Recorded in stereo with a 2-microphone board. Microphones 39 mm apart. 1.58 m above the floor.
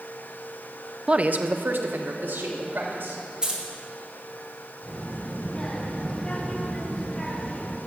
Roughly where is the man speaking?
Right.